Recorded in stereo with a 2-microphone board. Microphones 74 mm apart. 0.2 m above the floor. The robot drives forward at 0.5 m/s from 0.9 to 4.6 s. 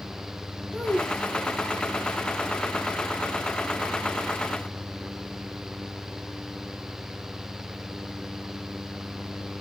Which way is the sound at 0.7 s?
10° left (ahead or behind).